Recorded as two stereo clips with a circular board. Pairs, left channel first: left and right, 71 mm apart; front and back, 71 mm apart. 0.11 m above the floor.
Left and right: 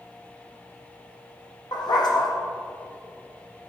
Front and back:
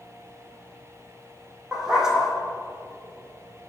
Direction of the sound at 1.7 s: 100° left.